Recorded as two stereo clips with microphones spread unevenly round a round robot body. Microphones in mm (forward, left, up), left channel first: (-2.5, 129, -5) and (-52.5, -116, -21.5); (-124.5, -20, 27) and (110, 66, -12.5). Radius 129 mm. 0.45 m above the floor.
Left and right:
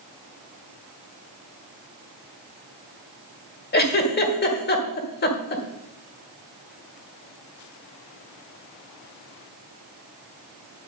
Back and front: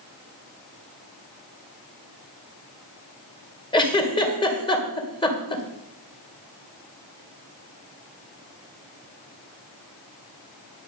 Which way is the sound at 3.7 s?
125° left.